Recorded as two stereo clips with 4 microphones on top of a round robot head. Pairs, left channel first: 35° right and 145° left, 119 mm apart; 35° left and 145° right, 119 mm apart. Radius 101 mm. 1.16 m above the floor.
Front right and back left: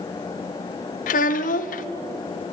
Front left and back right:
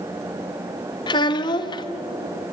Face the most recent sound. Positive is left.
turn(degrees=-20)